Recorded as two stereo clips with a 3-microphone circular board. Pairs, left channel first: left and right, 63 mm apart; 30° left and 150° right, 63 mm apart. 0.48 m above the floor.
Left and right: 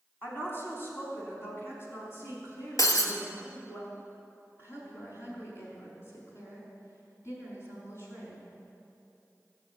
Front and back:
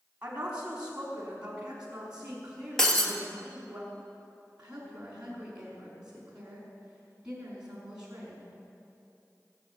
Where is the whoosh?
I don't hear a whoosh.